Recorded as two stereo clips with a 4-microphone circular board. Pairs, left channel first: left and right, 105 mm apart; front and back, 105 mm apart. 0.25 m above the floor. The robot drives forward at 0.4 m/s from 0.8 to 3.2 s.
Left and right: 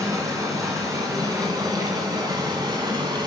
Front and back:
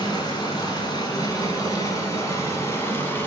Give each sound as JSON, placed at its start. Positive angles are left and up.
{"t": 0.0, "sound": "running water", "azimuth_deg": -40, "distance_m": 2.5}